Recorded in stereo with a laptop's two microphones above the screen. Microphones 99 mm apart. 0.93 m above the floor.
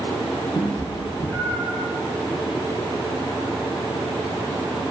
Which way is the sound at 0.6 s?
45° left (ahead or behind).